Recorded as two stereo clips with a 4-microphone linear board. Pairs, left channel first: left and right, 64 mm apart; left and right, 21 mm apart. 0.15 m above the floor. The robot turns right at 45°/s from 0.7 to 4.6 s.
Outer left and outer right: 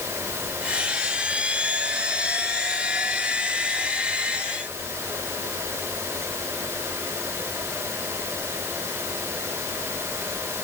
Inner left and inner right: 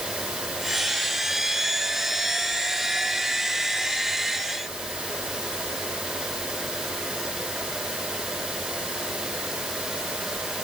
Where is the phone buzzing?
No phone buzzing in this recording.